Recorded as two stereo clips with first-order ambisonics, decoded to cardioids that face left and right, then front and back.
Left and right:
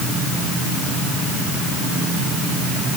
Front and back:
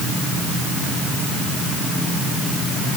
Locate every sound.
Only background noise.